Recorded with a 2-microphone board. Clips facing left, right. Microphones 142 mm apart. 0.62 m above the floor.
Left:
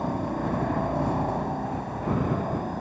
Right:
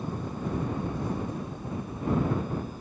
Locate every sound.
0.0 s a helicopter: 60° left (ahead or behind); by 2.8 s 65° left (ahead or behind)